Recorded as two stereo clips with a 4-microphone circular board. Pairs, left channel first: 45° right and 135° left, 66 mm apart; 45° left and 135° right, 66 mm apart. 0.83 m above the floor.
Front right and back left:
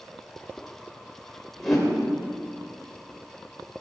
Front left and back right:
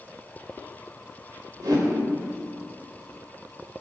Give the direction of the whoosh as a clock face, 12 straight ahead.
4 o'clock.